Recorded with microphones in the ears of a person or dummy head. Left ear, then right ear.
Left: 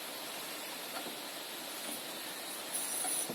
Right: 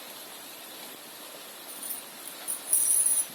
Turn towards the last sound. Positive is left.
turn(degrees=-15)  # may be behind; listen again after turning